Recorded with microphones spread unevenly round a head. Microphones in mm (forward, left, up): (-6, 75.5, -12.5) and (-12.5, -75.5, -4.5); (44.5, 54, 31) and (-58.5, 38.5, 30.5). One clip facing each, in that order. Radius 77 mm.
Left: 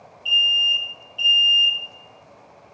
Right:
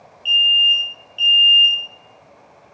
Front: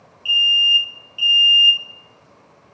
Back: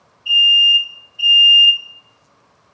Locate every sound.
0.2 s an alarm: 25° right, 2.5 m